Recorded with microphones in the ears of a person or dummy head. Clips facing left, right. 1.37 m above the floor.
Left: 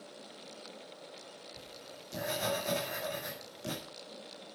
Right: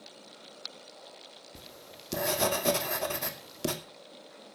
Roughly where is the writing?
Right.